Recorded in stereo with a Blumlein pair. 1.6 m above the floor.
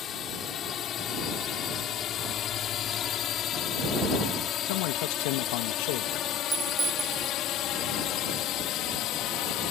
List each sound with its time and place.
0.0 s a drone: 30° left; by 9.7 s 35° left
4.7 s a man speaking: 50° left
6.5 s a clink: 10° right